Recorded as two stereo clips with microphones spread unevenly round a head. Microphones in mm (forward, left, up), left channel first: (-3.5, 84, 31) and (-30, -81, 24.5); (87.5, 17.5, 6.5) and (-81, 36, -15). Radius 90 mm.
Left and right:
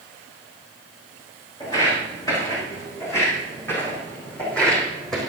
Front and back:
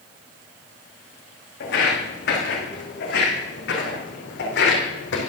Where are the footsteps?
15° left, 4.5 m; by 5.3 s 10° right, 3.5 m.